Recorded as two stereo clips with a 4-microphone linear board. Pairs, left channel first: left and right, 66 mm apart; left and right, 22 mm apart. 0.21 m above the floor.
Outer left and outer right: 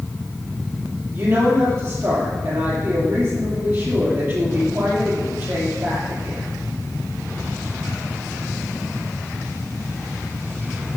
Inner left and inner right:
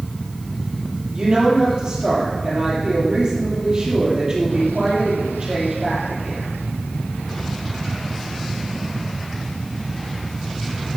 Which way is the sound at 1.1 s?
45° right (ahead or behind).